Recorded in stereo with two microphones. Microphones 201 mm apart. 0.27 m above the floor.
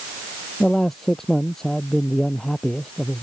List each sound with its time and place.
0.6 s a man speaking: centre (ahead or behind)